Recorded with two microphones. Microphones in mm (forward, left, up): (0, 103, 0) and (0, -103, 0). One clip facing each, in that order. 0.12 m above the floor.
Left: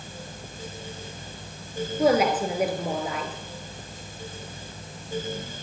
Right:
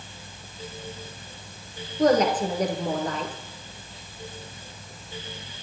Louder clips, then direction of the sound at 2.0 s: Right 1 dB; 10° left (ahead or behind).